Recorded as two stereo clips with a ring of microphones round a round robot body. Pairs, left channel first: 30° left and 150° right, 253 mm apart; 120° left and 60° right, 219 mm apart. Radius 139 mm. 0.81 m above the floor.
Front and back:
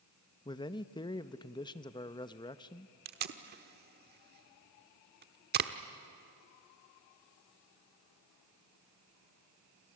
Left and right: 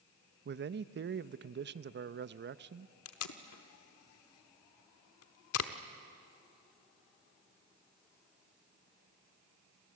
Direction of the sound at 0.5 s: 40° right.